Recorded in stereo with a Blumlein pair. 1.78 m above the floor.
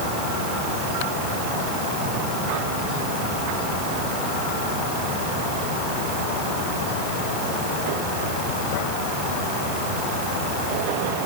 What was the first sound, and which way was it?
Only background noise.